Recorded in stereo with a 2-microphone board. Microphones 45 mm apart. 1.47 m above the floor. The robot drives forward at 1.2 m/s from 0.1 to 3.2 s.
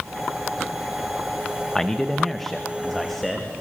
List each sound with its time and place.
1.8 s a man speaking: 10° left (ahead or behind), 0.9 m; by 3.5 s 5° left (ahead or behind), 2.5 m